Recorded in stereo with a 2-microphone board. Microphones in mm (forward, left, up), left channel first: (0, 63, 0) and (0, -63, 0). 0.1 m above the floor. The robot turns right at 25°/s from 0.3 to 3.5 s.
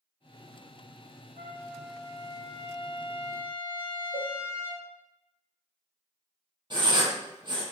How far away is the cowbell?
About 1.0 m.